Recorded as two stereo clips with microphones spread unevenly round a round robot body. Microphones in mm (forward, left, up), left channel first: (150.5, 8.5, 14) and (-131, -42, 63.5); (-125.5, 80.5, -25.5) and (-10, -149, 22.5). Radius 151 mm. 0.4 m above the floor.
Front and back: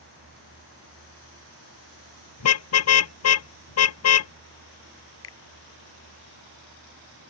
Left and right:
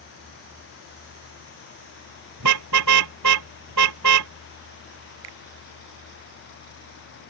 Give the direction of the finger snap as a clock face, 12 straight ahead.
1 o'clock.